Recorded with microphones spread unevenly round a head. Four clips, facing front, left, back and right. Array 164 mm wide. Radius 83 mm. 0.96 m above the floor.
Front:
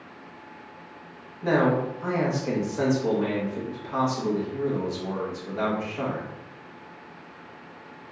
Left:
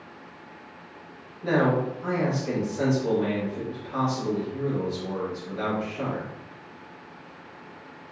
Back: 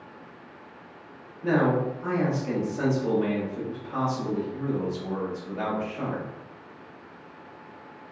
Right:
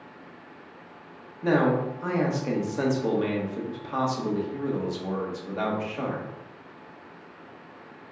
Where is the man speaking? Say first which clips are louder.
Even, front 1 dB; 55° right, 1.2 m.